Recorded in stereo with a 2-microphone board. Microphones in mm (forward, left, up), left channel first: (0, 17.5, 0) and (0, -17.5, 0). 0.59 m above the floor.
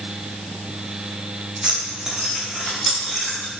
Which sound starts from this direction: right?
Keys jangling, at 1.6 s.